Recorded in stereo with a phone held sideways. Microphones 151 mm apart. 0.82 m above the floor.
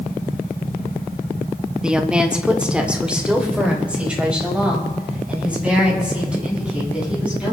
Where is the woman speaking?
5° right (ahead or behind), 1.0 m.